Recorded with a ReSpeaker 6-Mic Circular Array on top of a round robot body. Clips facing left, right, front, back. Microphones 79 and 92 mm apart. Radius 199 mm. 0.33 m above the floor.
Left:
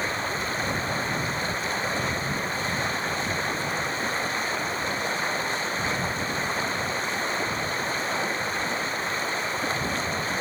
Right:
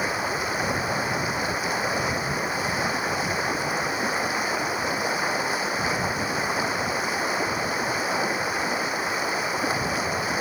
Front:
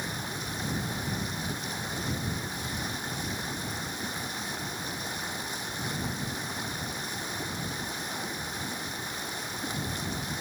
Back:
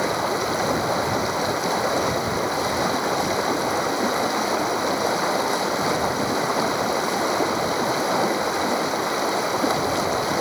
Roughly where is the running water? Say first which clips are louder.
Right 2 dB, back 14 dB; behind.